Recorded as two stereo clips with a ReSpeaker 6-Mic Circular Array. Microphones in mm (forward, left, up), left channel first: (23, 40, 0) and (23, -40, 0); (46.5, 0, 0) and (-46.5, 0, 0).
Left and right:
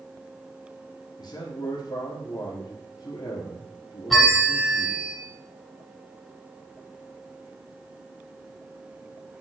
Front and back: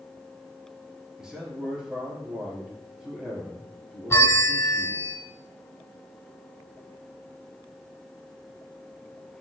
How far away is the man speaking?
About 2.5 m.